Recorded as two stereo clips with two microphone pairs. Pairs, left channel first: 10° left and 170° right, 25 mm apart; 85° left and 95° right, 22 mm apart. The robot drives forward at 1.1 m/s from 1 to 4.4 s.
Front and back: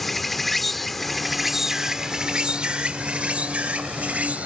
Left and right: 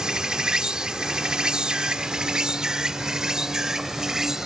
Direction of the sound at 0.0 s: 75° right.